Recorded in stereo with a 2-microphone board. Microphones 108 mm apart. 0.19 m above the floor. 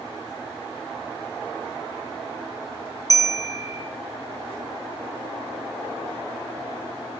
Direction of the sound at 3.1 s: 30° right (ahead or behind).